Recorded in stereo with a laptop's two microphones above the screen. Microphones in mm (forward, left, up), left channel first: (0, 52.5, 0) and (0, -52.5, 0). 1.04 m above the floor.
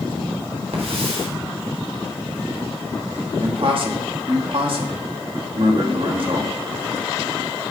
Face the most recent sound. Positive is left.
turn(degrees=-55)  # may be behind; listen again after turning